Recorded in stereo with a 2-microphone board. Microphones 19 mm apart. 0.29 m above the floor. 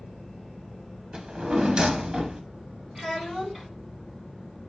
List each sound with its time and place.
1.1 s a drawer: 55° right (ahead or behind), 0.6 m
3.0 s a child speaking: 15° right (ahead or behind), 2 m